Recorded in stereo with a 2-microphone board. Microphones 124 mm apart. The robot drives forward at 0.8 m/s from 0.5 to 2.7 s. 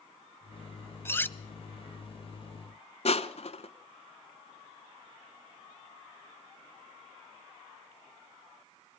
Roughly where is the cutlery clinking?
Centre.